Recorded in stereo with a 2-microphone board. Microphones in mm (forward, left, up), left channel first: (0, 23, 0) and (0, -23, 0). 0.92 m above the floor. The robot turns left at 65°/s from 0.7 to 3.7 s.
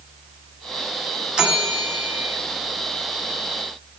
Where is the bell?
165° right, 1.2 m; by 2.4 s 130° left, 1.2 m.